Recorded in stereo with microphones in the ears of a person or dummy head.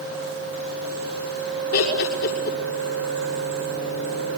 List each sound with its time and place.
1.7 s laughter: 70° left (ahead or behind), 6.5 m